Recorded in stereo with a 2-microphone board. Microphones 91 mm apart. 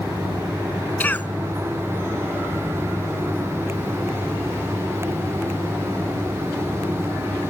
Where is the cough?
20° left (ahead or behind).